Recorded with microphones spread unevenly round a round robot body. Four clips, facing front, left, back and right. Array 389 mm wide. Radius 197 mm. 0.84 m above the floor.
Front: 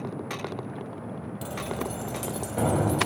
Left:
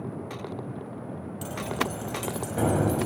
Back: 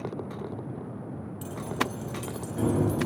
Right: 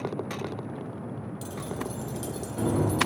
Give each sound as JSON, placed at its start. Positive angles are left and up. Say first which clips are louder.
{"t": 1.4, "sound": "keys jangling", "louder": "left 6 dB, back 1 dB", "azimuth_deg": 30, "distance_m": 4.5}